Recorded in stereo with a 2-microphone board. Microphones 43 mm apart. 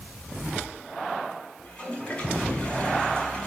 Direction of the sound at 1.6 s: 25° left (ahead or behind).